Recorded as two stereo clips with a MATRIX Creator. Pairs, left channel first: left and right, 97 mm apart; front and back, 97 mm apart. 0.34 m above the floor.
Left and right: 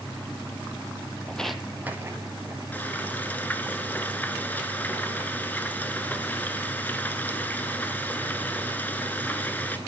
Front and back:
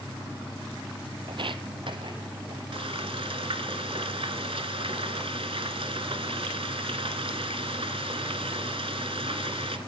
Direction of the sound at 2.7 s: 160° left.